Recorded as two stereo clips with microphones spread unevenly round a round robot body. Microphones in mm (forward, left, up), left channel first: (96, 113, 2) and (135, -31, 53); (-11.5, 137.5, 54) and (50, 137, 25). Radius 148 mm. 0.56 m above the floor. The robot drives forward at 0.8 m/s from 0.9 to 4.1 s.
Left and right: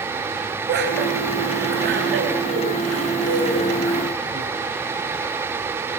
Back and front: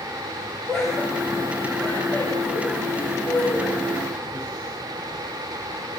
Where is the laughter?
80° right, 5 m; by 4.5 s 115° right, 5 m.